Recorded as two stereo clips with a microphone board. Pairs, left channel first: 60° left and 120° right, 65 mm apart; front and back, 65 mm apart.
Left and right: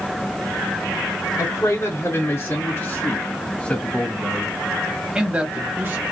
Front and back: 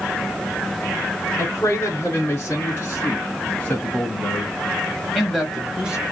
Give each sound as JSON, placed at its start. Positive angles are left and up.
{"t": 1.4, "sound": "a man speaking", "azimuth_deg": 40, "distance_m": 2.5}